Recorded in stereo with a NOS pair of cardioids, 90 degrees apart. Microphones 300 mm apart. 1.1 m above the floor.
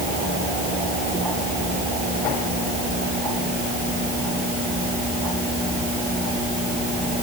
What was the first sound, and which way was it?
Only background noise.